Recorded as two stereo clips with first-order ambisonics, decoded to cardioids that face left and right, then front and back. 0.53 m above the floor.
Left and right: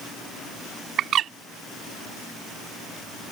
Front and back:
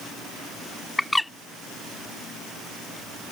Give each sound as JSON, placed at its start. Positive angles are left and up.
{"t": 1.0, "sound": "a bird", "azimuth_deg": -80}